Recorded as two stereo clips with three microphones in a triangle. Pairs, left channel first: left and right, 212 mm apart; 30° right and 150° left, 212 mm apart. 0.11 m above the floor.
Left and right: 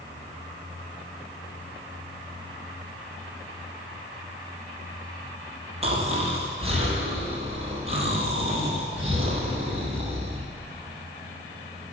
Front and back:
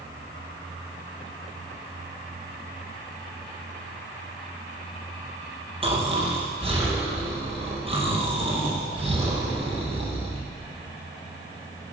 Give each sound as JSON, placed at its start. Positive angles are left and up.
{"t": 5.8, "sound": "snoring", "azimuth_deg": -150, "distance_m": 3.5}